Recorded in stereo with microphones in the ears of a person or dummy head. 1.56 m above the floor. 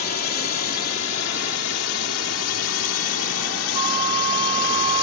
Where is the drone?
50° left (ahead or behind); by 5.0 s 80° left.